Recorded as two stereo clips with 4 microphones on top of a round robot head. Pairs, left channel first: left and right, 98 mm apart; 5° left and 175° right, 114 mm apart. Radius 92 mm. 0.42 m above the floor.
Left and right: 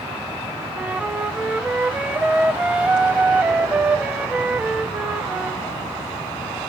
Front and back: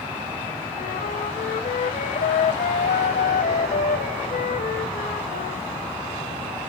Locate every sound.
0.8 s a flute: 10° right, 0.7 m